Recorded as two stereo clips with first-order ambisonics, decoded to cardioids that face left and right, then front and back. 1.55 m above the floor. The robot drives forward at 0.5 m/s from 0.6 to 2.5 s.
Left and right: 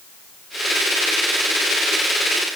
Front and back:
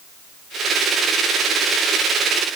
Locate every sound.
Only background noise.